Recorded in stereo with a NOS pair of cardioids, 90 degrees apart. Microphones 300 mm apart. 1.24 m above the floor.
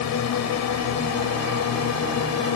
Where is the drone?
70° left; by 2.6 s 65° left.